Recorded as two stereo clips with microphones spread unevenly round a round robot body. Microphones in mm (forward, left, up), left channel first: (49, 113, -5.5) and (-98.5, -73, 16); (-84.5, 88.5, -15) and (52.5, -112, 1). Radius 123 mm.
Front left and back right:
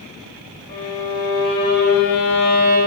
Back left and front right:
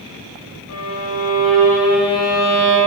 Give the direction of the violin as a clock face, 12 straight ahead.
9 o'clock.